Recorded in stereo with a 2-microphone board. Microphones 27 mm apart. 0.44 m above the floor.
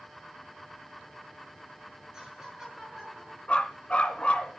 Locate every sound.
2.1 s laughter: 20° right (ahead or behind), 9.5 m; by 3.4 s 10° right (ahead or behind), 9 m
3.5 s a dog barking: 45° left (ahead or behind), 2 m